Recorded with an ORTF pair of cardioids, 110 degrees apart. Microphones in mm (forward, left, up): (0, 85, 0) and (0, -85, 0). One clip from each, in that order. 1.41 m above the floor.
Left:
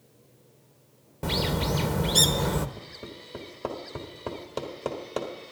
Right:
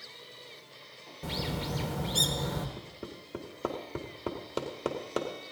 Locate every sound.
1.2 s a bird: 40° left, 1.0 m
2.8 s hammering: 10° right, 2 m